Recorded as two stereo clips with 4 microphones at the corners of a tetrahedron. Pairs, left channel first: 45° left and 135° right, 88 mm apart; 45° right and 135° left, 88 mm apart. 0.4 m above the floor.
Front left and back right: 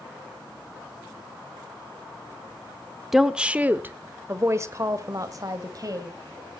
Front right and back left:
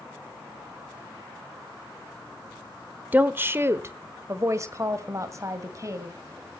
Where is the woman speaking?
140° left, 0.7 m; by 6.6 s 175° right, 2 m.